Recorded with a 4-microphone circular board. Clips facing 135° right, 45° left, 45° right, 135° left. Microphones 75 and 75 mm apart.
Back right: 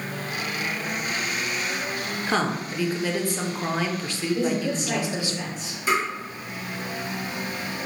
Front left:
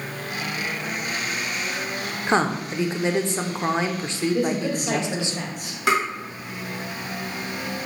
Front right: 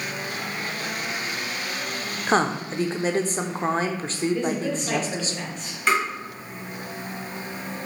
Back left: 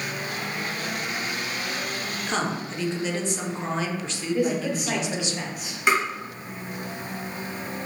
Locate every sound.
2.3 s a woman speaking: 15° right, 0.5 m
4.3 s a man speaking: 55° left, 1.1 m
5.9 s tapping: 55° left, 1.2 m